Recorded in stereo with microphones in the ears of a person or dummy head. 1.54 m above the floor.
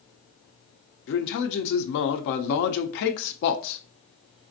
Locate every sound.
1.1 s a man speaking: 55° left (ahead or behind), 0.7 m